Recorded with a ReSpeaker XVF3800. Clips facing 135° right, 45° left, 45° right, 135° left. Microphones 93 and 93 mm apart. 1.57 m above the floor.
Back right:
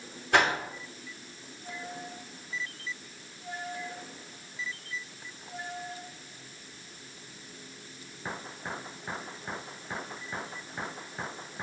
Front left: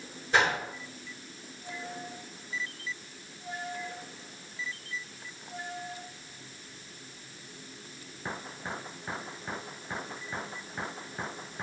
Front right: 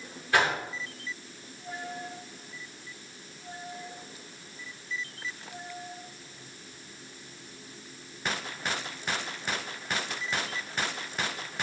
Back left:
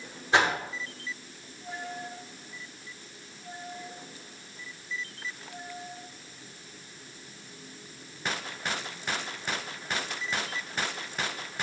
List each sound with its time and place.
0.3 s a whoosh: 155° right, 4.5 m